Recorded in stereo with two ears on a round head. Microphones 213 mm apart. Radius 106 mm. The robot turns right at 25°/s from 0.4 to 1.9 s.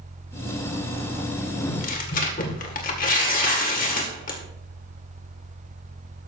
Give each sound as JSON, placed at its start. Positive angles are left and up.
{"t": 1.7, "sound": "tearing paper", "side_deg": 40, "distance_m": 2.0}